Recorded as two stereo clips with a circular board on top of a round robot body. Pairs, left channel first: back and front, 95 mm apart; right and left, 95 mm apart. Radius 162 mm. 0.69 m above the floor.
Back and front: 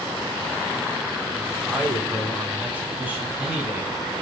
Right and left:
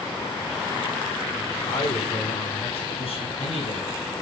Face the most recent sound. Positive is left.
turn(degrees=-75)